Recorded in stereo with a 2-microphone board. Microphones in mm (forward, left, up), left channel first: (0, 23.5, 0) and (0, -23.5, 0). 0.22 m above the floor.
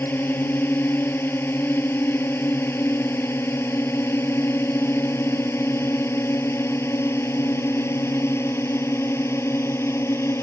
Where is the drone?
55° left (ahead or behind); by 10.4 s 75° left (ahead or behind).